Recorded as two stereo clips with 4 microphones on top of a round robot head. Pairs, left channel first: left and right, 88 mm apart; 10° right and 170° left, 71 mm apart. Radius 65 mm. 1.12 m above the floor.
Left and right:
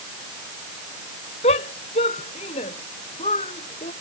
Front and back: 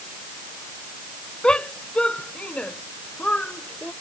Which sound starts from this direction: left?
A shout, at 1.4 s.